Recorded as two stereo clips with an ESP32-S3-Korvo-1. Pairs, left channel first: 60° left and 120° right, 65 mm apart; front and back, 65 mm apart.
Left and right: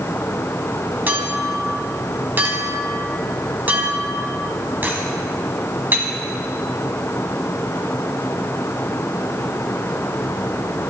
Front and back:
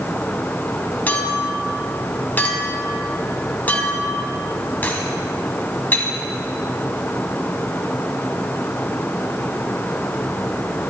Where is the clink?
65° right, 1.4 m.